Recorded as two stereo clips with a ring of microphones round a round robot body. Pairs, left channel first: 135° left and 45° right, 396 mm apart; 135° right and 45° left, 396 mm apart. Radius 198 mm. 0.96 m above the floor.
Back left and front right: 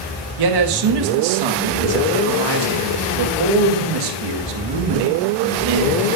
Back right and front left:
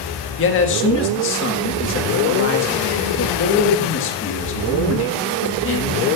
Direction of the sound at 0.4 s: 75° right.